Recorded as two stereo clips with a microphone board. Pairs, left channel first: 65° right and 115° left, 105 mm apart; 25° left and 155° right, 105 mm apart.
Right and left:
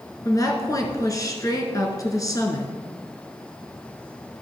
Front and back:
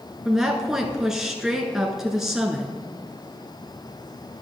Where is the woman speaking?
75° right, 1.3 m.